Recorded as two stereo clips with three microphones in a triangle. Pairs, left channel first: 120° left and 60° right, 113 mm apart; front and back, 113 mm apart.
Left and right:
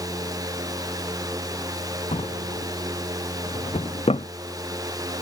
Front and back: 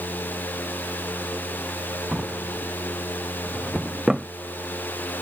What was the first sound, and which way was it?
A drawer, 95° left.